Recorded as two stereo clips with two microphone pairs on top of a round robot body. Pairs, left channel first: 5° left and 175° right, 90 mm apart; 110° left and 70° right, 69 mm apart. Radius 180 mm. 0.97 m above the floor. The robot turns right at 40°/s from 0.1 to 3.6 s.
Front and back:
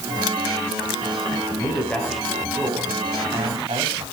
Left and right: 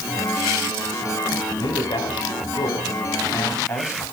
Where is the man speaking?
70° left, 8.5 m; by 4.0 s 155° left, 8.5 m.